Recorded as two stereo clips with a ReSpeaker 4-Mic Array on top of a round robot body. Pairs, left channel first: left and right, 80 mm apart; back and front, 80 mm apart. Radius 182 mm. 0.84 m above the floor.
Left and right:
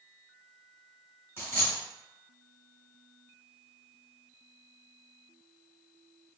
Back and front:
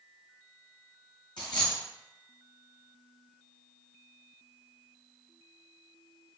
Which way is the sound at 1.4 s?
150° left.